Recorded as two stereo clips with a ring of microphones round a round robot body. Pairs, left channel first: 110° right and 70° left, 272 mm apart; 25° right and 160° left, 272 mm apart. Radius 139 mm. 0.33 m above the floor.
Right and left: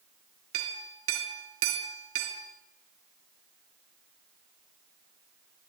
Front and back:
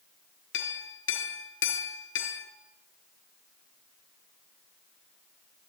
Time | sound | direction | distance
0.5 | a clink | 25° left | 4 m